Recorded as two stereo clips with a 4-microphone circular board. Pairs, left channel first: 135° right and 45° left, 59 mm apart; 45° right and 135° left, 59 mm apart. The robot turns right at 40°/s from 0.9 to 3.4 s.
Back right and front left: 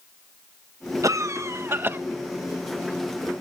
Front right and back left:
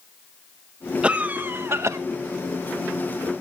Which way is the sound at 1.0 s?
60° left.